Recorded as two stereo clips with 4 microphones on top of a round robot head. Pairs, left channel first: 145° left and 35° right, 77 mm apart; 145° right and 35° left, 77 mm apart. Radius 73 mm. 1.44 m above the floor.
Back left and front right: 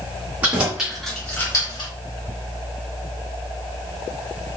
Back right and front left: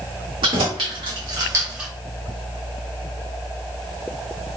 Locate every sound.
0.4 s keys jangling: 35° left, 1.9 m; by 1.9 s 120° left, 1.1 m